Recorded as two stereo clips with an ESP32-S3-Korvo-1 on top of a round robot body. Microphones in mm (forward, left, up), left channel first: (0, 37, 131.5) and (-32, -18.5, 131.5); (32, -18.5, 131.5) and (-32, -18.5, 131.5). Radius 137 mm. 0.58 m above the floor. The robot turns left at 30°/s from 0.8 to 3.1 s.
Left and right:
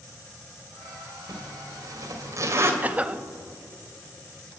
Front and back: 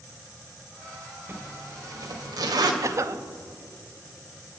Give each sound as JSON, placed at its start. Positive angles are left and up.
{"t": 1.3, "sound": "a zipper", "azimuth_deg": -130, "distance_m": 2.5}
{"t": 2.8, "sound": "a cough", "azimuth_deg": -175, "distance_m": 0.9}